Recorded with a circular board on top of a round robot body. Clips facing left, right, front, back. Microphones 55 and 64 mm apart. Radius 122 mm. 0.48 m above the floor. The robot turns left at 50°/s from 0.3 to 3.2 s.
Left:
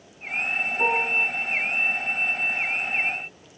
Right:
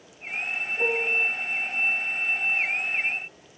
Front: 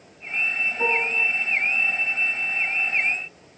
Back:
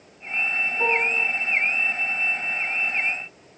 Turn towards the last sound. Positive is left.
turn(degrees=-30)